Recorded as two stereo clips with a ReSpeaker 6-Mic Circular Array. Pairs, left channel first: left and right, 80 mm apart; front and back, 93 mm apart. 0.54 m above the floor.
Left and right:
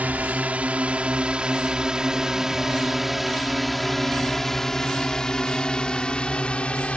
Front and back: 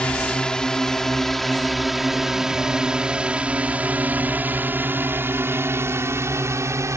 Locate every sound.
0.0 s a drone: 60° right; by 7.0 s 155° left